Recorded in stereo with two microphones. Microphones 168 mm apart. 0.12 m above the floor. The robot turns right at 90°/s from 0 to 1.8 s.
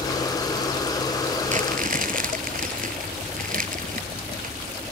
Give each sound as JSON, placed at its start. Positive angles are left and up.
{"t": 1.5, "sound": "crumpling", "side_deg": -45, "distance_m": 1.1}